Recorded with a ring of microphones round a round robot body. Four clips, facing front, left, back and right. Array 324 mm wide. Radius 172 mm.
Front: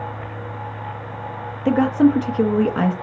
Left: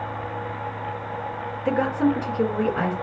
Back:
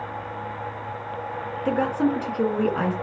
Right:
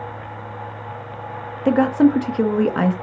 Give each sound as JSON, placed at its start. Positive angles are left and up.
{"t": 1.6, "sound": "a woman speaking", "azimuth_deg": -55, "distance_m": 1.3}